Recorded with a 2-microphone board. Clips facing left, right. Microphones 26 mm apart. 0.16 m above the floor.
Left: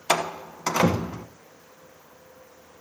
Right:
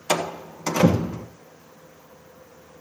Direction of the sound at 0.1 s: 25° left (ahead or behind).